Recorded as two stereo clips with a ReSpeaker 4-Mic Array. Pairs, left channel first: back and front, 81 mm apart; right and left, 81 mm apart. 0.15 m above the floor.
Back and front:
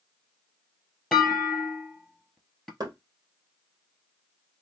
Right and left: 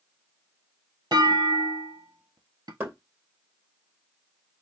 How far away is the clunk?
About 1.1 m.